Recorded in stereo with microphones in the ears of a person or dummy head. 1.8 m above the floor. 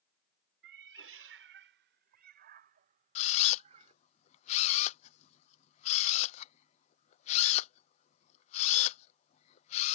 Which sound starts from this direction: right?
A cat meowing, at 0.6 s.